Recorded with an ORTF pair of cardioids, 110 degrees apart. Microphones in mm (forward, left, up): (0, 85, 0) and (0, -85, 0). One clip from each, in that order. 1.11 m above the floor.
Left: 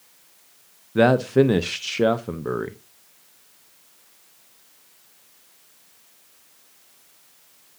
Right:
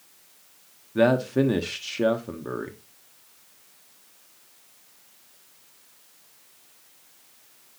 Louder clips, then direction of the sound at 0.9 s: Left 4 dB; 20° left.